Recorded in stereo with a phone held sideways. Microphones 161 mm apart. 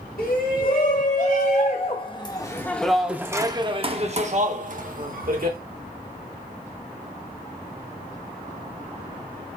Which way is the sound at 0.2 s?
60° left (ahead or behind).